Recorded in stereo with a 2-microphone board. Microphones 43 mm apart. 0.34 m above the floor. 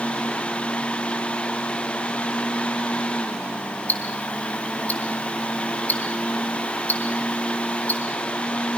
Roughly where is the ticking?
Left.